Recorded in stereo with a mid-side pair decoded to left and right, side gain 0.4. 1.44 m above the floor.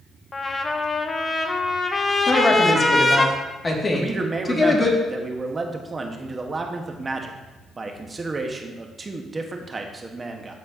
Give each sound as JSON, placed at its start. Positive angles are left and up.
{"t": 0.3, "sound": "a trumpet", "azimuth_deg": 30, "distance_m": 0.9}
{"t": 2.3, "sound": "a woman speaking", "azimuth_deg": 30, "distance_m": 2.0}
{"t": 3.9, "sound": "a man speaking", "azimuth_deg": -30, "distance_m": 1.3}